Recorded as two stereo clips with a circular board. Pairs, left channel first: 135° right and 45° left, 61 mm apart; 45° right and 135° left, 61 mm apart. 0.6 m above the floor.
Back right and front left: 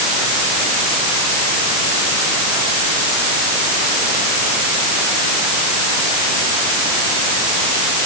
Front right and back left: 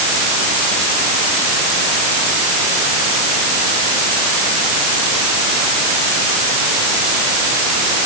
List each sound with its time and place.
Only background noise.